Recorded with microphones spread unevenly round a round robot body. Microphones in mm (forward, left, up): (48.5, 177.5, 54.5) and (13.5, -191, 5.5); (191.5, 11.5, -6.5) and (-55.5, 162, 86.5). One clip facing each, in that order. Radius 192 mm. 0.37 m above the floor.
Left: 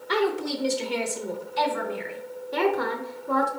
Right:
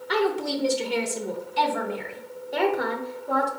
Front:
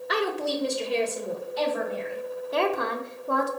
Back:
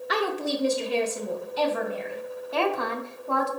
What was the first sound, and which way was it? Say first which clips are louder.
A woman speaking: right 1 dB, even; 10° left.